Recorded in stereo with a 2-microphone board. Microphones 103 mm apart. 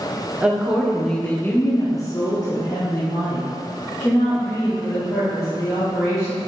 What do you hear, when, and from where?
0.4 s a woman speaking: 10° right (ahead or behind), 0.7 m; by 6.4 s 35° left (ahead or behind), 2.5 m